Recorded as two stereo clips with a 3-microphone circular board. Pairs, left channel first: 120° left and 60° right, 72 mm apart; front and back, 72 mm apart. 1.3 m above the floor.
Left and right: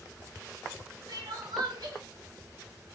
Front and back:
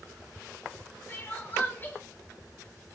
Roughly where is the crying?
Ahead right.